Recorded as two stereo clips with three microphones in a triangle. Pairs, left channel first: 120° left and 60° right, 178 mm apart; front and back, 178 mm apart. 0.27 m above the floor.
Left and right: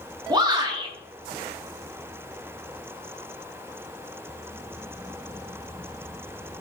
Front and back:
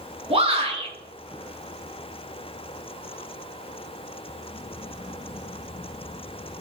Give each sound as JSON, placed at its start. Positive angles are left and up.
{"t": 0.3, "sound": "a shout", "azimuth_deg": -125, "distance_m": 5.0}